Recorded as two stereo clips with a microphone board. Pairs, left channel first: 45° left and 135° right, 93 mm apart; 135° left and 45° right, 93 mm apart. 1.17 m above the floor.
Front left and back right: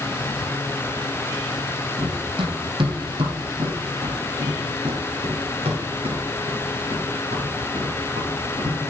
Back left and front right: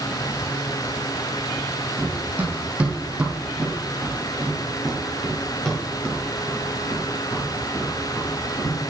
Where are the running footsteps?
110° right, 3 m; by 8.8 s 160° right, 5.5 m.